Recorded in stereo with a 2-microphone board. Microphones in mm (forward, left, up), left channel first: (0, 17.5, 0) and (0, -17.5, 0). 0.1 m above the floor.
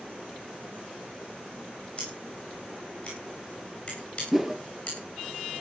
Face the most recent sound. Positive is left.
turn(degrees=-5)  # may be behind; listen again after turning